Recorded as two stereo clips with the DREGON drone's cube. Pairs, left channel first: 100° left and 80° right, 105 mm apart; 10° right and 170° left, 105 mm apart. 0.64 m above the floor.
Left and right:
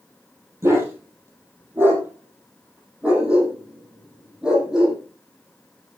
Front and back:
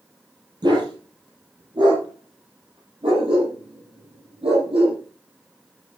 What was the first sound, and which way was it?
A dog barking, 145° right.